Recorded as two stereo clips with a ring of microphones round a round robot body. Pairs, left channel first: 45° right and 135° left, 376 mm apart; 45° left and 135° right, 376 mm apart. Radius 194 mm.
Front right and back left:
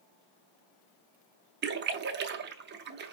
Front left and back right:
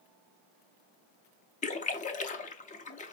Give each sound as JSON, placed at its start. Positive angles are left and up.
{"t": 1.6, "sound": "a splash", "azimuth_deg": 100, "distance_m": 0.5}